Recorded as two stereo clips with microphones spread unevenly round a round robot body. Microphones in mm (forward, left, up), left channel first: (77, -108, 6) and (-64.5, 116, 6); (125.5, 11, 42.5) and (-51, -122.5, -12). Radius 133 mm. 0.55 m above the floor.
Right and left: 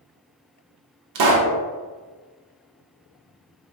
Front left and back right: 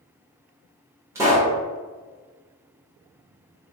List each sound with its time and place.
1.1 s a pop: 140° left, 0.6 m